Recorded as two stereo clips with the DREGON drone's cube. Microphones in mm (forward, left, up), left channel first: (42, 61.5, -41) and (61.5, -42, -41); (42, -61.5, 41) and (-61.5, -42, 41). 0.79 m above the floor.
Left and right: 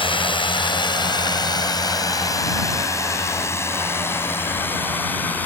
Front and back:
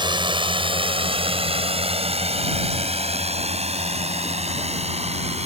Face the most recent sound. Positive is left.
turn(degrees=175)